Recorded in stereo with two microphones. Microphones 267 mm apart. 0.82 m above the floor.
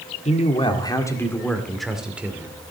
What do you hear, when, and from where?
0.2 s a man speaking: 25° left (ahead or behind), 1.7 m; by 2.6 s 10° right (ahead or behind), 2.5 m